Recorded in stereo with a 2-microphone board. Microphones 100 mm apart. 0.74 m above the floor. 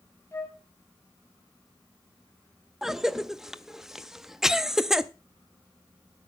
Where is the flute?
30° left (ahead or behind), 1.7 m.